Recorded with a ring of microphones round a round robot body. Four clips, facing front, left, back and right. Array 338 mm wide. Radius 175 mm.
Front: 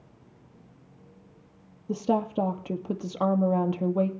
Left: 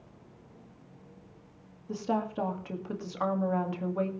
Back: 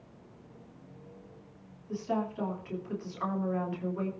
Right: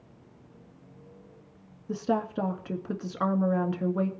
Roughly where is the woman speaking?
Ahead right.